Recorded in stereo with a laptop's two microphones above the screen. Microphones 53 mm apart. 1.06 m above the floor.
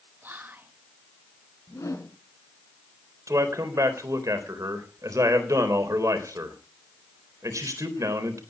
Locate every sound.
0.2 s whispering: 35° right (ahead or behind), 1.3 m
1.7 s a whoosh: 75° left (ahead or behind), 3.5 m
3.3 s a man speaking: 85° right, 3.5 m